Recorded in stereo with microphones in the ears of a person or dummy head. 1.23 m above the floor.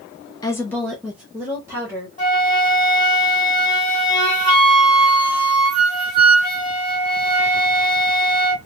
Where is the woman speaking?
15° left (ahead or behind), 0.5 m; by 2.1 s 20° right (ahead or behind), 1.1 m.